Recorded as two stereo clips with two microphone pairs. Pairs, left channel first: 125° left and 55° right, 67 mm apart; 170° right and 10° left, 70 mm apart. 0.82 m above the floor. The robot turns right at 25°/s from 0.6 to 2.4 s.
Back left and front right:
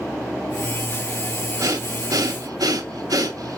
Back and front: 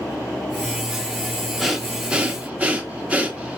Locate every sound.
1.6 s breathing: 75° right, 0.9 m; by 3.6 s 55° right, 0.9 m